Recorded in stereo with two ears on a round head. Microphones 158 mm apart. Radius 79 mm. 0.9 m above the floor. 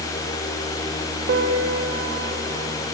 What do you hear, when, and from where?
1.3 s a piano: 60° right (ahead or behind), 1.2 m